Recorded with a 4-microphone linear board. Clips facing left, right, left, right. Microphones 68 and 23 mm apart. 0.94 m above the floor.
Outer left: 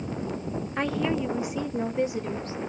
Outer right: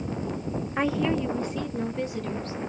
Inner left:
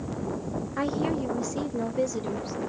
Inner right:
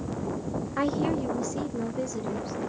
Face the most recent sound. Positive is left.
turn(degrees=25)  # may be behind; listen again after turning